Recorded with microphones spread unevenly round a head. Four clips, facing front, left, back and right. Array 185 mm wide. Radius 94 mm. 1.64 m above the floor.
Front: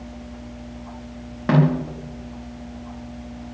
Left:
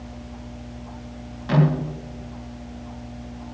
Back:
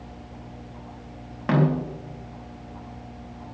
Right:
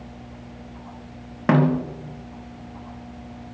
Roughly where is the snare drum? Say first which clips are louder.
Right 2 dB, front 3 dB; ahead right.